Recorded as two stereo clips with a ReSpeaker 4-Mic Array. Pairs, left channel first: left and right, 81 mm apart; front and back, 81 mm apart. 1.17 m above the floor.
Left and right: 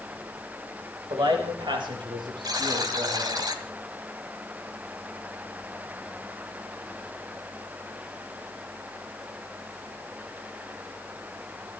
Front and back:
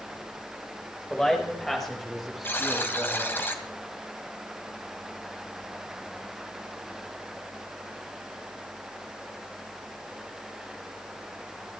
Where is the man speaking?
80° right, 4 m; by 3.4 s 95° right, 7 m.